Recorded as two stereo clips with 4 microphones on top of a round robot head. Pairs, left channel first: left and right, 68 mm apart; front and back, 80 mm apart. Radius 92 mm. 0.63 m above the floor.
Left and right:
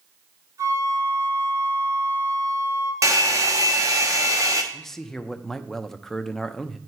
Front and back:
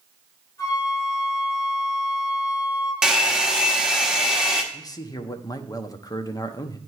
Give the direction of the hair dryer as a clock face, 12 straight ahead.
3 o'clock.